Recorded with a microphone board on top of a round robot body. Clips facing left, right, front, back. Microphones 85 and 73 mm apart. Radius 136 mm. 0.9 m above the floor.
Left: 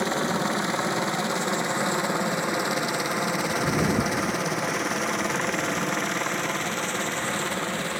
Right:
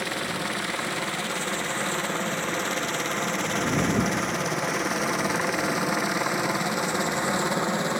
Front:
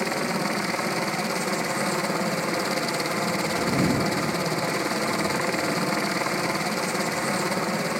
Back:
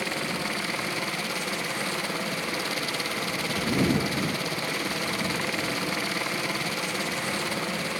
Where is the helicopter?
50° left; by 8.0 s 45° right.